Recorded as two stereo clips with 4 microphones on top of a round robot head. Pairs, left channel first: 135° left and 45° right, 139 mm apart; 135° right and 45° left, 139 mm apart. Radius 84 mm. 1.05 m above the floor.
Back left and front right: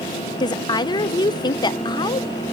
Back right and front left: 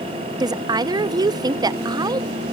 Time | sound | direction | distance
0.4 | a woman speaking | 95° left | 0.6 m